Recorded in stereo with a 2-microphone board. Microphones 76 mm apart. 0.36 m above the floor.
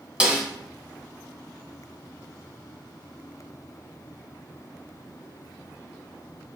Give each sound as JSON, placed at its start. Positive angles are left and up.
{"t": 0.2, "sound": "a snare drum", "side_deg": -15, "distance_m": 0.7}